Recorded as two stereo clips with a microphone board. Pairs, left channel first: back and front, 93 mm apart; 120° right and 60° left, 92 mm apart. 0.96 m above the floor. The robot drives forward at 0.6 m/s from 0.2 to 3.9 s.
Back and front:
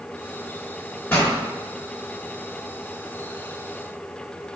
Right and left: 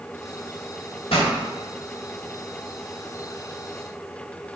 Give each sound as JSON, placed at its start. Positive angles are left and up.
{"t": 1.1, "sound": "a pop", "azimuth_deg": -115, "distance_m": 2.5}